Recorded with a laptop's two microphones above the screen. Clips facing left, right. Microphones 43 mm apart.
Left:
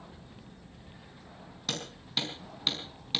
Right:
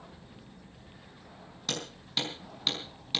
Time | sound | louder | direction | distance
1.7 | hammering | even | 5° left (ahead or behind) | 5 m